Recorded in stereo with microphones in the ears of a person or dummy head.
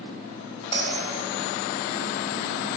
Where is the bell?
40° left (ahead or behind), 2.0 m.